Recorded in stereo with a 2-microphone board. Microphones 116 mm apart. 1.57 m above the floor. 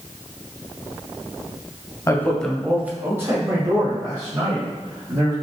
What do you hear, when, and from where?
2.1 s a man speaking: 25° left (ahead or behind), 0.7 m; by 5.3 s 40° right (ahead or behind), 3 m